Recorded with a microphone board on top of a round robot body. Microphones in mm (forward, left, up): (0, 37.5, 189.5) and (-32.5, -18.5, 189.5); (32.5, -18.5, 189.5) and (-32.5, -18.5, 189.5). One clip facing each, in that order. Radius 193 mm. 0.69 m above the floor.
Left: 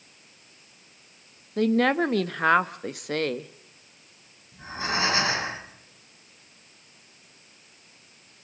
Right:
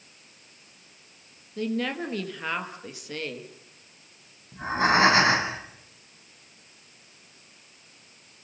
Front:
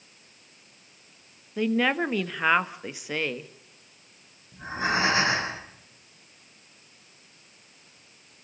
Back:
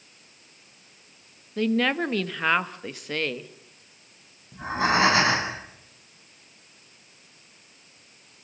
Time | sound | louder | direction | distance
1.6 | a woman speaking | left 7 dB, back 1 dB | 80° left | 1.5 m
4.5 | breathing | right 8 dB, back 4 dB | 160° right | 9 m